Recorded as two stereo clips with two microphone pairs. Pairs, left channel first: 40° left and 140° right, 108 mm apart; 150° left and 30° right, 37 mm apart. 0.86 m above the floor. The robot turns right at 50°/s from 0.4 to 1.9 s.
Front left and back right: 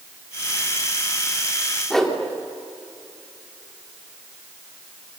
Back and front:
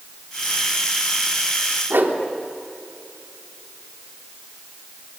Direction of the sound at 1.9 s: 45° right.